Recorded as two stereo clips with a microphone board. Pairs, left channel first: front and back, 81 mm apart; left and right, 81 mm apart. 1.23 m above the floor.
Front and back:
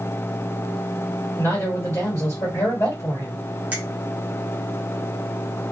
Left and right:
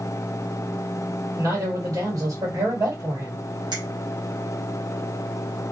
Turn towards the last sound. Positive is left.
turn(degrees=-110)